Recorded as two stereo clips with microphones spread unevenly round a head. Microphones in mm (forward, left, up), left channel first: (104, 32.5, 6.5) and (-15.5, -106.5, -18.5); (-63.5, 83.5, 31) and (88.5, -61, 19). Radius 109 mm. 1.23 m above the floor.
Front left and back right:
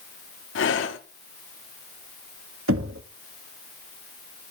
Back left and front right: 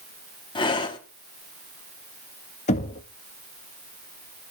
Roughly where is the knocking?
Behind.